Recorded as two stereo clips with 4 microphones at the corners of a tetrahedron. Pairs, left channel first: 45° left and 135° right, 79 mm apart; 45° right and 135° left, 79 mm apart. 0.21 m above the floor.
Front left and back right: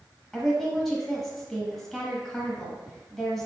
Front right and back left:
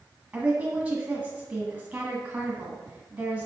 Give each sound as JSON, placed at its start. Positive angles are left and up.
{"t": 0.3, "sound": "a woman speaking", "azimuth_deg": 125, "distance_m": 1.3}